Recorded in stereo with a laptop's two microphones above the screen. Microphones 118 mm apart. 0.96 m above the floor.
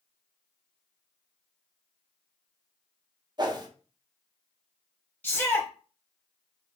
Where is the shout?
15° left (ahead or behind), 0.9 m.